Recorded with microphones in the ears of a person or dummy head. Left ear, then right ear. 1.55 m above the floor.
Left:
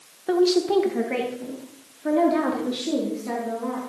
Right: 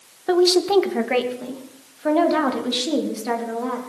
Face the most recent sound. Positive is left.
turn(degrees=-35)  # may be behind; listen again after turning